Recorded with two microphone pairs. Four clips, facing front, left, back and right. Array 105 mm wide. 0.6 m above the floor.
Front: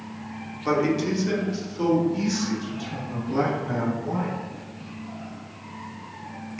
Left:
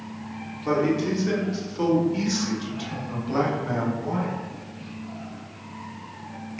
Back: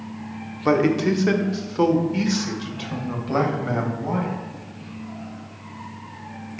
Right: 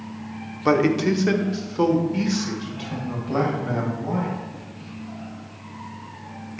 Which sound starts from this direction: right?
A man speaking, at 0.7 s.